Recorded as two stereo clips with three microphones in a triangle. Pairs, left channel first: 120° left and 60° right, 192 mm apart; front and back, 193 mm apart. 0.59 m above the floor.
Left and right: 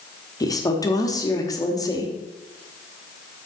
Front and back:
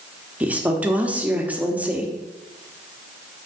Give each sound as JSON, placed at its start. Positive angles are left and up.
{"t": 0.4, "sound": "a woman speaking", "azimuth_deg": 110, "distance_m": 0.9}